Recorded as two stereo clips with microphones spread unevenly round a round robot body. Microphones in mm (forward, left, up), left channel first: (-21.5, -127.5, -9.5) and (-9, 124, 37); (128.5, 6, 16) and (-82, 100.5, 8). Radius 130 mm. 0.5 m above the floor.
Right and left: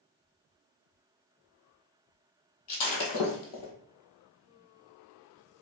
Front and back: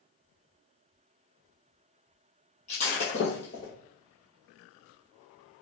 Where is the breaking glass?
90° right, 1.4 m.